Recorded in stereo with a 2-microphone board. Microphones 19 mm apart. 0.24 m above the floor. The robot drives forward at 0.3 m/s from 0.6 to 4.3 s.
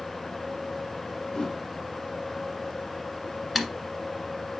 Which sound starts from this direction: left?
A whoosh, at 1.3 s.